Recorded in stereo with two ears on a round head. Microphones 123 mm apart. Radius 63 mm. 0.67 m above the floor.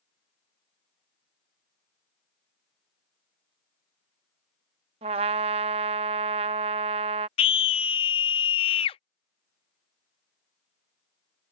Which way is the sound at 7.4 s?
40° left (ahead or behind).